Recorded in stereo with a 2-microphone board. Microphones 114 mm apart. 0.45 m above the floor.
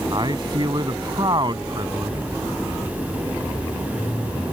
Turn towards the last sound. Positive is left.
turn(degrees=-45)  # may be behind; listen again after turning